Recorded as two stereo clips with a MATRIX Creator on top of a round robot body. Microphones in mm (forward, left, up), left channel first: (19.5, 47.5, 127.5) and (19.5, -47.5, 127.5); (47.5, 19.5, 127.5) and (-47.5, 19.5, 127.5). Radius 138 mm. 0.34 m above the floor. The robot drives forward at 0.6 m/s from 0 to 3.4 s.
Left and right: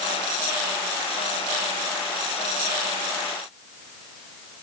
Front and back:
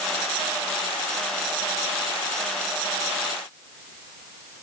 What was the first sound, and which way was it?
Only background noise.